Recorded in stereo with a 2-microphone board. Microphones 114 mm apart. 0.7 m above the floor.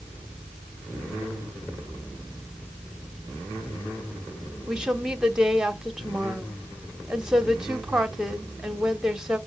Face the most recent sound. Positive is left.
turn(degrees=-5)  # may be behind; listen again after turning